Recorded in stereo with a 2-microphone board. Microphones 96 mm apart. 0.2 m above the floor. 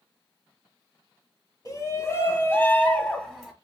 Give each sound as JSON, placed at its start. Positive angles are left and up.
{"t": 1.6, "sound": "a shout", "side_deg": 40, "distance_m": 1.2}